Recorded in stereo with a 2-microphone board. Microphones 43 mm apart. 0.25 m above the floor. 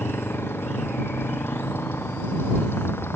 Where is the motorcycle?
65° left (ahead or behind).